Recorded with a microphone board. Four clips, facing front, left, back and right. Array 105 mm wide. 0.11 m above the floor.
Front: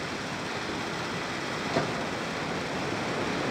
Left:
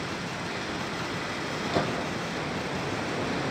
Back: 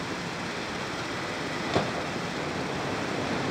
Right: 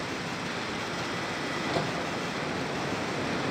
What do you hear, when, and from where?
1.7 s a gunshot: 165° left, 3 m